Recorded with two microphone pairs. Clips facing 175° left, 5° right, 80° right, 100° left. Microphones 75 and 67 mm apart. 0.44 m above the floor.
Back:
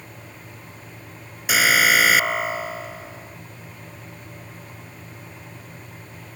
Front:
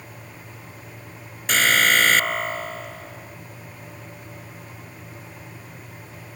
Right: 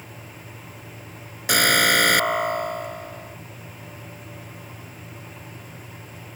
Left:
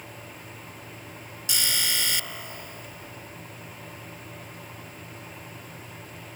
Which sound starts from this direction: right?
An alarm, at 1.5 s.